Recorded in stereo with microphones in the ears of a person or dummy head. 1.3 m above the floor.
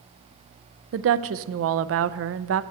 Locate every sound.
0.9 s a woman speaking: 70° right (ahead or behind), 0.5 m